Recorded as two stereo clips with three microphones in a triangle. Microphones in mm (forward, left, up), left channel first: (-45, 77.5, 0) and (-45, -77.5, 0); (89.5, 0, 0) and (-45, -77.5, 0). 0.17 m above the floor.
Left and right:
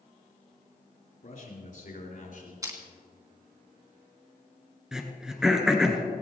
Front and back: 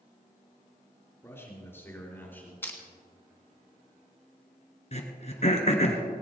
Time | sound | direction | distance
1.2 | a man speaking | 100° left | 3.5 m
2.6 | crushing | 40° right | 2 m
4.9 | throat clearing | 5° right | 1.6 m